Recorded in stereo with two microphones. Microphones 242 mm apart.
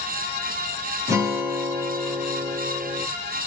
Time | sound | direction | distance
1.1 | a guitar | 10° right (ahead or behind) | 1.6 m